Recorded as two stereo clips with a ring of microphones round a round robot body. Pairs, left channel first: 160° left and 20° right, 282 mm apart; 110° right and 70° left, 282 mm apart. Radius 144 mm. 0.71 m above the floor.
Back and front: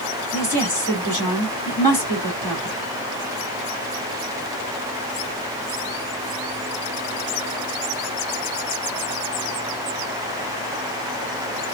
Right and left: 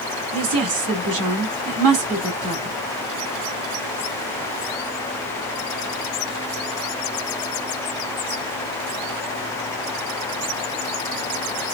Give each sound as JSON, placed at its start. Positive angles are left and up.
{"t": 0.3, "sound": "a woman speaking", "azimuth_deg": 80, "distance_m": 2.0}